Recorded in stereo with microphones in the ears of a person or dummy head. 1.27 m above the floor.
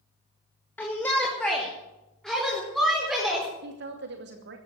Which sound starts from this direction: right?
A woman speaking, at 3.6 s.